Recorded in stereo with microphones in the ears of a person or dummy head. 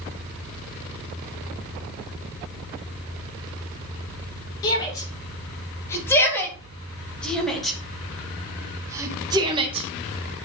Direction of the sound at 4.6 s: 25° left (ahead or behind).